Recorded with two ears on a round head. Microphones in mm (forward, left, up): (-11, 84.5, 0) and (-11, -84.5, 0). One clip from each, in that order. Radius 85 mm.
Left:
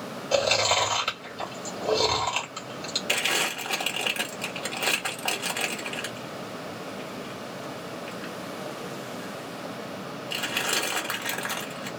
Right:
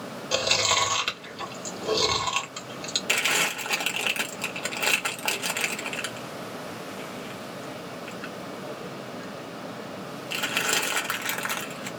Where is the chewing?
20° right (ahead or behind), 1.6 m.